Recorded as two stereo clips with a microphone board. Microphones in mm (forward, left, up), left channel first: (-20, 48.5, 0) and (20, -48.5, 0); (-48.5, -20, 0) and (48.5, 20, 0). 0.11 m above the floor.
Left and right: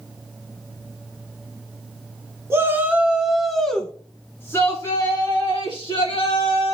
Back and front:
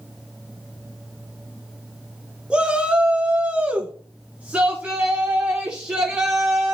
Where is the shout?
45° right, 1.3 m; by 6.8 s 100° left, 2 m.